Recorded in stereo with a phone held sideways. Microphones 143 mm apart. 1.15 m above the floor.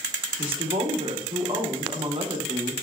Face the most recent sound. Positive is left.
turn(degrees=-40)  # may be behind; listen again after turning